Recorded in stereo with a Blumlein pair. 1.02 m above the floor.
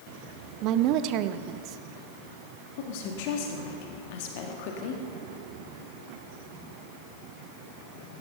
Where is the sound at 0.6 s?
40° right, 0.8 m.